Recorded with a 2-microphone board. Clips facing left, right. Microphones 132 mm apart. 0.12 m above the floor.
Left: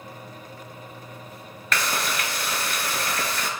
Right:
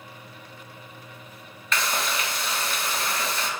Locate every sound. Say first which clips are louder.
1.7 s frying: left 1 dB; 60° left (ahead or behind), 0.5 m